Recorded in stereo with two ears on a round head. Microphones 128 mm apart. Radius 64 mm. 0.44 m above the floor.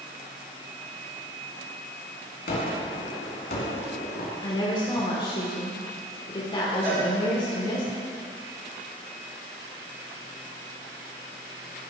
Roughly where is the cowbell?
Centre.